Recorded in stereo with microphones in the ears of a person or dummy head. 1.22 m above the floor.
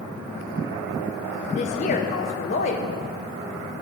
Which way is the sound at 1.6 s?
35° left (ahead or behind).